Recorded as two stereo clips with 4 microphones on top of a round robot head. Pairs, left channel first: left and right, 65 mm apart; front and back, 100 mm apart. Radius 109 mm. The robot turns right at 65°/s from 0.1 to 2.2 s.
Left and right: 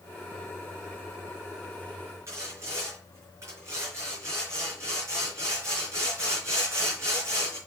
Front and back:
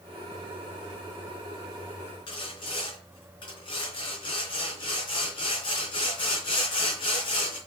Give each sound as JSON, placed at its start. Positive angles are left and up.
{"t": 2.3, "sound": "sawing", "azimuth_deg": -40, "distance_m": 3.5}